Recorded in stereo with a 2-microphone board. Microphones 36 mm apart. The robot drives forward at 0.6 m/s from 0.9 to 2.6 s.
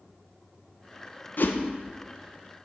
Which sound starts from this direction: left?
A whoosh, at 1.4 s.